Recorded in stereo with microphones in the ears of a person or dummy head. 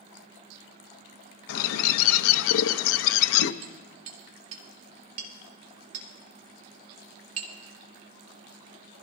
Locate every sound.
1.5 s a bird: 70° left (ahead or behind), 0.7 m
3.6 s hammering: 50° right (ahead or behind), 3 m